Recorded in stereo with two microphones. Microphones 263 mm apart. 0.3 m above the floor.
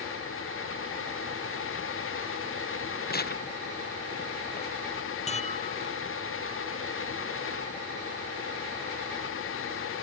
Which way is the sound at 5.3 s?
25° left (ahead or behind).